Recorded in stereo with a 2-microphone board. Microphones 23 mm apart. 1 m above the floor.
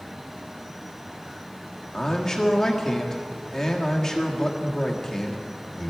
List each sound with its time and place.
1.9 s a man speaking: 20° left (ahead or behind), 1.4 m